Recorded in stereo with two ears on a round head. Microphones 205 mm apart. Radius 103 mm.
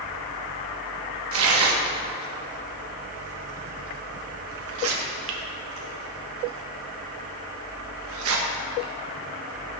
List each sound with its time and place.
1.3 s tearing paper: 65° right (ahead or behind), 1.5 m